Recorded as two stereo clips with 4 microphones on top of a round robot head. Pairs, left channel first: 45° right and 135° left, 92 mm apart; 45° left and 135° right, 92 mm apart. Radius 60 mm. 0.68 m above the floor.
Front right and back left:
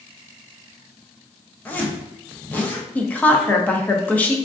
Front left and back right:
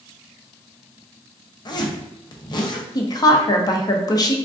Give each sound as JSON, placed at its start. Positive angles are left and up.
{"t": 1.6, "sound": "a zipper", "azimuth_deg": 25, "distance_m": 0.7}
{"t": 3.0, "sound": "a woman speaking", "azimuth_deg": 25, "distance_m": 0.7}